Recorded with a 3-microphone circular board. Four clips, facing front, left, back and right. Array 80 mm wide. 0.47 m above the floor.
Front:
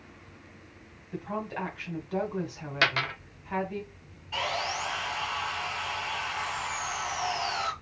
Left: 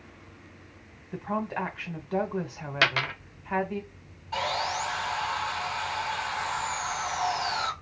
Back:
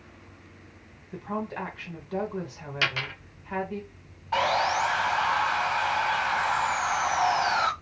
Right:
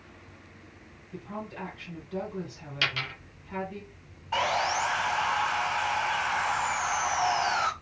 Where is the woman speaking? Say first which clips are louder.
Left 8 dB, back 2 dB; 90° left, 1.2 m.